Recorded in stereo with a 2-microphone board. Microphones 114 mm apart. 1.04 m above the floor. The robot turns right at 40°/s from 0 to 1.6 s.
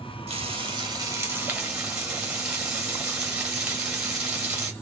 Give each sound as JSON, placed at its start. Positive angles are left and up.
{"t": 0.3, "sound": "frying", "azimuth_deg": -60, "distance_m": 3.0}